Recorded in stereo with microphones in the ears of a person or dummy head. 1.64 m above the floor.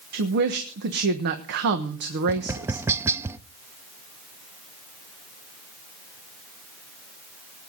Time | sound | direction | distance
0.1 | a woman speaking | 55° right (ahead or behind) | 1.2 m
2.3 | tapping | 15° right (ahead or behind) | 0.6 m